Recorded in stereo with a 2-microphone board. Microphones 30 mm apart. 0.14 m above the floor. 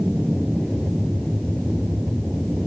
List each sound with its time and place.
0.0 s an aircraft: 5° left (ahead or behind)